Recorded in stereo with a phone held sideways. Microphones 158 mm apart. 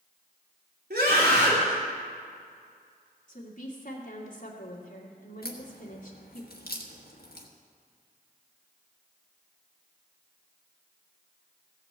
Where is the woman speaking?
55° left (ahead or behind), 2.5 m.